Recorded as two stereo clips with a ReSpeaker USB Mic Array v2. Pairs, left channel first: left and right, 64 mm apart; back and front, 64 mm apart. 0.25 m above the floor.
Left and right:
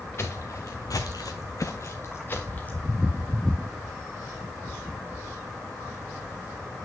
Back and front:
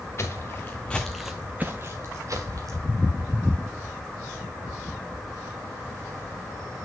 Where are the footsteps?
135° left, 1.1 m; by 2.8 s 25° left, 1.4 m.